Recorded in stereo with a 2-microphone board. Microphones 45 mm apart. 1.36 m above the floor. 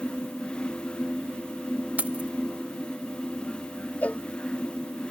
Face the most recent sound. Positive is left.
turn(degrees=35)  # may be behind; listen again after turning